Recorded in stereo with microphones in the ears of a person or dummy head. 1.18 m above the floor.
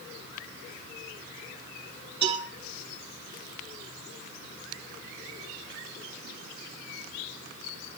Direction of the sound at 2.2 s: 30° right (ahead or behind).